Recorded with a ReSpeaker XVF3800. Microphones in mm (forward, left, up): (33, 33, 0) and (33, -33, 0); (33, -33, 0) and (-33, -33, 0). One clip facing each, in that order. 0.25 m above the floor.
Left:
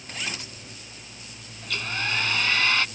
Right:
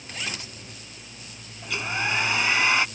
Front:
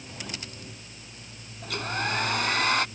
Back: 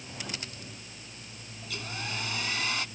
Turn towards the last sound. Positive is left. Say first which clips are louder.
# right 2 dB, front 9 dB
turn(degrees=-20)